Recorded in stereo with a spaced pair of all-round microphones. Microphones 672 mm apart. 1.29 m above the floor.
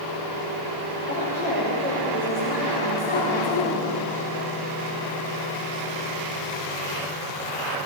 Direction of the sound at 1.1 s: 15° left (ahead or behind).